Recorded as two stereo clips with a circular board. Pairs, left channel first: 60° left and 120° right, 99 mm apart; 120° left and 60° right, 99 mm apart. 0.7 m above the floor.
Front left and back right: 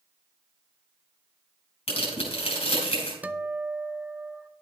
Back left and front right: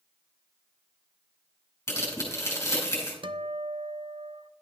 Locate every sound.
1.9 s tearing paper: 60° left, 4.5 m
3.2 s a guitar: 45° right, 0.6 m